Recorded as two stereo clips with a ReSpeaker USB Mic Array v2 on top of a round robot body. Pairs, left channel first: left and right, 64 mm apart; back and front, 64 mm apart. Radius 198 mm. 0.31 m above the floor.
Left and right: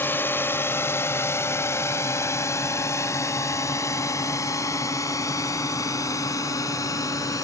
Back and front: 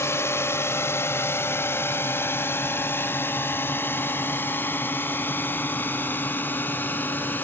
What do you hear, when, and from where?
0.0 s a drone: 140° left; by 7.4 s 120° left